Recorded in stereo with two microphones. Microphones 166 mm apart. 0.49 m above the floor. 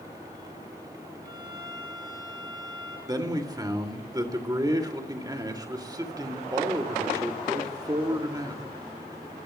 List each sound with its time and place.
1.2 s a violin: 25° right (ahead or behind), 5.5 m
3.1 s a man speaking: 25° right (ahead or behind), 1.9 m